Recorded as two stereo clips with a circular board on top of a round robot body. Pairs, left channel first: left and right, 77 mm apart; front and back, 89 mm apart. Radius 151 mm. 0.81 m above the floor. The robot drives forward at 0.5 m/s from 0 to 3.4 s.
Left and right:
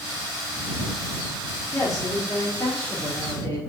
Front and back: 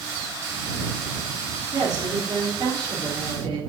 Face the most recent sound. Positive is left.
turn(degrees=145)